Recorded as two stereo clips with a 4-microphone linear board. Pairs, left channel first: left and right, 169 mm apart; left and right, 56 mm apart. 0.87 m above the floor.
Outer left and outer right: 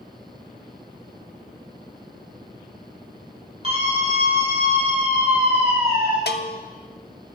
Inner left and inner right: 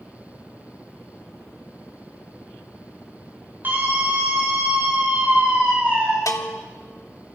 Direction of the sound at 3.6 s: 35° right (ahead or behind).